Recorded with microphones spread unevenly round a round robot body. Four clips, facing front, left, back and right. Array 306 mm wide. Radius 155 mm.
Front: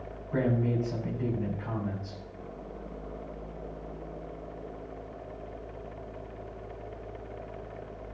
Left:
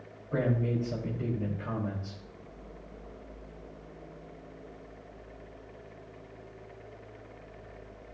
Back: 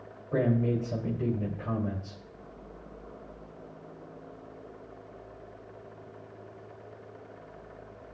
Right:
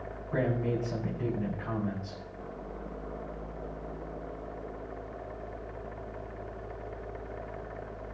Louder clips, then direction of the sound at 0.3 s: Even, back 1 dB; 155° left.